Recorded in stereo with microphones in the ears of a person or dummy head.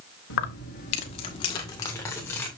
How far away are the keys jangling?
About 0.9 m.